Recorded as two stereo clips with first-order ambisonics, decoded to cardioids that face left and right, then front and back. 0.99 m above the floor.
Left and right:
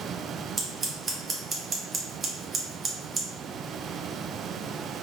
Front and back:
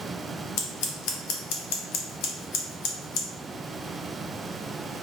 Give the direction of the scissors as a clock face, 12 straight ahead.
1 o'clock.